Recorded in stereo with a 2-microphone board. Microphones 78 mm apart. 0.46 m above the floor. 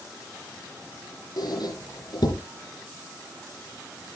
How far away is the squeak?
About 3 m.